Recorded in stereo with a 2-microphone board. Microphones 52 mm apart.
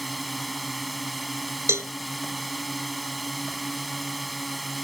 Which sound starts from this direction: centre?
A drone, at 0.0 s.